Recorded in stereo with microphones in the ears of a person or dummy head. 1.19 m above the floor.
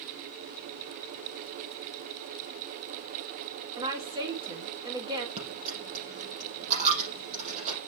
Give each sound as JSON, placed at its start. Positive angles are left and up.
{"t": 3.8, "sound": "a woman speaking", "side_deg": -25, "distance_m": 1.5}
{"t": 5.4, "sound": "a dropped coin", "side_deg": -40, "distance_m": 5.0}